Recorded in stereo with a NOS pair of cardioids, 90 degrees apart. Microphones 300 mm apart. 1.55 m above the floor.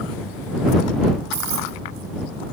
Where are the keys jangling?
70° right.